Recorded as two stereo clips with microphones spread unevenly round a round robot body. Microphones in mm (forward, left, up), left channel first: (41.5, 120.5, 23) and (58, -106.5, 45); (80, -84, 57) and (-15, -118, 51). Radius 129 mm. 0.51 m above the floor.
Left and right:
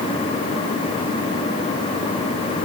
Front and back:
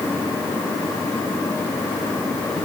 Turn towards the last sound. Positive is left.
No sound to turn to.